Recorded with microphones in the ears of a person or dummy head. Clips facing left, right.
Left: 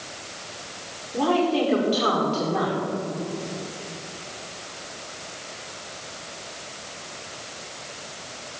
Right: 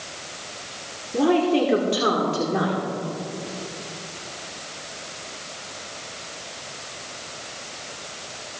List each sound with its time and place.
1.1 s a woman speaking: 25° right (ahead or behind), 1.7 m